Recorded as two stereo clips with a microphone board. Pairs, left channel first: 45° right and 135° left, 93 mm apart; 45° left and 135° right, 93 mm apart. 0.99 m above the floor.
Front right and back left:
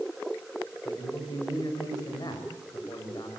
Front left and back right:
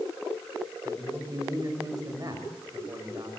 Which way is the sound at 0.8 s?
85° right.